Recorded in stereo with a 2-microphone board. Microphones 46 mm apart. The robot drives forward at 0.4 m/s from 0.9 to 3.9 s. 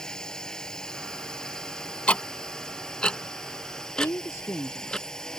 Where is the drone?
15° left (ahead or behind).